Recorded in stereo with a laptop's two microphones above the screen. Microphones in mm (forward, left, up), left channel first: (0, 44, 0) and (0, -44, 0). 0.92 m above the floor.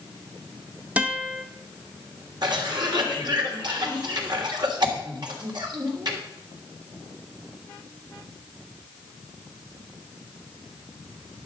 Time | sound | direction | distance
1.0 | a guitar | 15° right (ahead or behind) | 1.0 m
2.4 | a cough | 55° right (ahead or behind) | 3 m